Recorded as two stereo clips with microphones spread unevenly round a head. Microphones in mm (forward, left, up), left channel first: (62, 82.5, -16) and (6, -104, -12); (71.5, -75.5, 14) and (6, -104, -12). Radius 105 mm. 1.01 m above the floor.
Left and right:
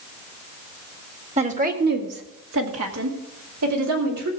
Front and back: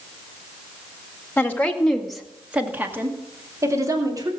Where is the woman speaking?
50° right, 1.8 m; by 4.3 s 120° right, 3 m.